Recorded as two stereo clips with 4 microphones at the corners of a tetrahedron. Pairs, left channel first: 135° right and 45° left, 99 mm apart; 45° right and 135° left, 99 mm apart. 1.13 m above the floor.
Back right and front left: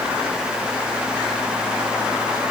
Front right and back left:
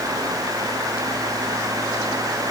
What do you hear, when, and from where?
Only background noise.